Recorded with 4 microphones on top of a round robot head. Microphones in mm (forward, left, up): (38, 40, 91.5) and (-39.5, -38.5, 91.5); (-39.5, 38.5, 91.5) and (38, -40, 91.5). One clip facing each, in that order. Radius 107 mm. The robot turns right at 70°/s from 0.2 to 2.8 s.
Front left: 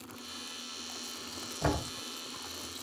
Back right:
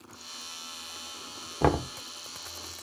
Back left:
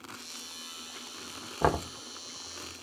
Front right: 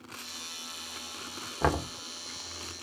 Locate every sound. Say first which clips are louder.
1.6 s knocking: back right 7 dB, back left 1 dB; 150° right, 1.1 m; by 1.9 s 130° right, 1.1 m